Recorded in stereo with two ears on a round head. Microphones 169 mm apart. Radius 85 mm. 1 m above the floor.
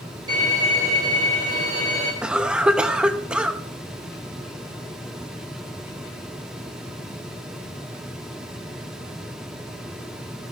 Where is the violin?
20° right (ahead or behind), 4.5 m.